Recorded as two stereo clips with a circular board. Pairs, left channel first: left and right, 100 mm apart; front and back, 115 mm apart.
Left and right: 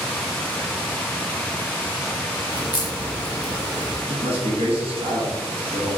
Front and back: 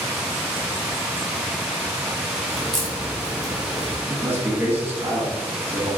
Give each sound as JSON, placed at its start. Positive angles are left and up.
{"t": 2.5, "sound": "a crack", "azimuth_deg": 85, "distance_m": 1.1}
{"t": 4.1, "sound": "a man speaking", "azimuth_deg": -110, "distance_m": 1.5}